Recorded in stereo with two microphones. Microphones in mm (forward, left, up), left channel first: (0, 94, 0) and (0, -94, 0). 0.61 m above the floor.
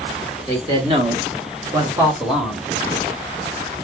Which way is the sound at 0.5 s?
25° right (ahead or behind).